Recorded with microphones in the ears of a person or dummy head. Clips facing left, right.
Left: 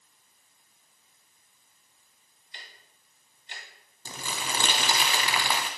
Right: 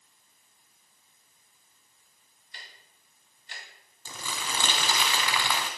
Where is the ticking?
25° left (ahead or behind), 2.5 m.